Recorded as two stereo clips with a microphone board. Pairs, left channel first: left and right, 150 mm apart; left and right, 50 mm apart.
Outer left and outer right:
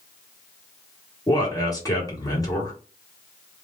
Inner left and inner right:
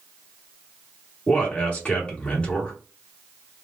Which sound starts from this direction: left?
A man speaking, at 1.3 s.